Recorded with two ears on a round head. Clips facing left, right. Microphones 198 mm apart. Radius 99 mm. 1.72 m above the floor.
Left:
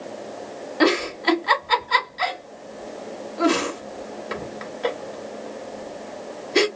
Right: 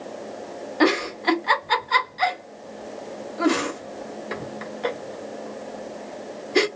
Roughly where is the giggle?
Centre.